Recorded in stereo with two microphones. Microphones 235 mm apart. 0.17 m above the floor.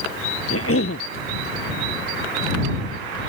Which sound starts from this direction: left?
A cough, at 0.5 s.